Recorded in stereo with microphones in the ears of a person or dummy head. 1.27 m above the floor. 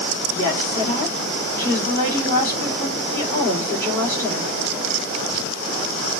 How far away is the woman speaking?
About 2.5 m.